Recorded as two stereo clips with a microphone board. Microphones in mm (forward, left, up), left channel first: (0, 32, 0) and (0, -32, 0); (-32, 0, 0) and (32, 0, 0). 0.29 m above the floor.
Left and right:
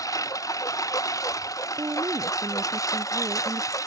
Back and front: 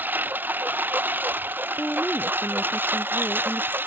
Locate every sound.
0.0 s a lawn mower: 60° left
1.8 s a woman speaking: 110° right